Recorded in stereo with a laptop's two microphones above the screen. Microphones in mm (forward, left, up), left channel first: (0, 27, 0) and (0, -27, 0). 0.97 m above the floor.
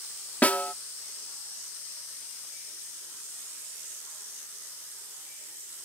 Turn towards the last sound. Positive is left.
turn(degrees=30)  # may be behind; listen again after turning